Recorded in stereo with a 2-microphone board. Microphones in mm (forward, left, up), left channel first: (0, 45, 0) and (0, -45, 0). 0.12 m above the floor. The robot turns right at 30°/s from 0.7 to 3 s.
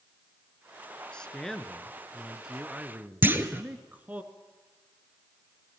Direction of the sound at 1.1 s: 160° left.